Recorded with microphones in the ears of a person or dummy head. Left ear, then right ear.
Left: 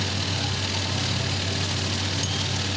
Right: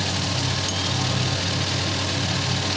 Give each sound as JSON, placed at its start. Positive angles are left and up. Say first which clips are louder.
{"t": 0.0, "sound": "a machine running", "louder": "right 2 dB", "side_deg": -75, "distance_m": 6.0}